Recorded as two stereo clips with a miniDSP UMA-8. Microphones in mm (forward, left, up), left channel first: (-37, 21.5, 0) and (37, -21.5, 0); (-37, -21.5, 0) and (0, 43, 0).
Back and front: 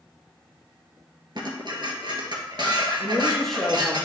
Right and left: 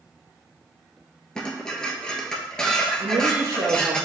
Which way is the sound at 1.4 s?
40° right.